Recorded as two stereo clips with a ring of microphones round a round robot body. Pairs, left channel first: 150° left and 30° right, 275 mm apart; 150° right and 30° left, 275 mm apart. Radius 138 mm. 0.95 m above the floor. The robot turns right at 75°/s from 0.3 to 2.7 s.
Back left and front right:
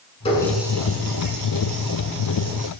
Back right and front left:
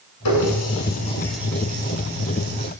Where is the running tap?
140° right, 7 m; by 2.7 s 40° left, 7 m.